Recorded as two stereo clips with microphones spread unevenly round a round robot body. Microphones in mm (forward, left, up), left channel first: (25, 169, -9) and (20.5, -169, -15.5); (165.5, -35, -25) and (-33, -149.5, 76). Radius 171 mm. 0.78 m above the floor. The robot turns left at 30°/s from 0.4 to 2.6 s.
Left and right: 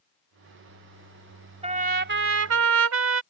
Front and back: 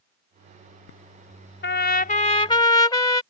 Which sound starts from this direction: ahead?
A trumpet, at 1.6 s.